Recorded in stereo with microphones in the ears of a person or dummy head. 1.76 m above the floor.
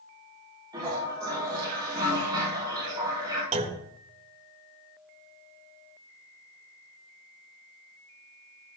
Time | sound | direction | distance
0.7 | a toilet flushing | 25° right (ahead or behind) | 6 m
3.5 | a clunk | 40° right (ahead or behind) | 1.6 m